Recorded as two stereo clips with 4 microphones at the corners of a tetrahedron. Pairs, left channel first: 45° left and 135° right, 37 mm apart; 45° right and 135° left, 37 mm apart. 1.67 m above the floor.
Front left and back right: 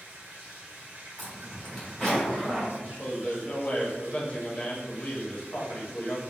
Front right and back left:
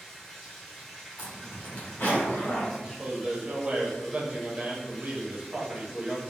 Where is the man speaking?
95° left, 0.8 m.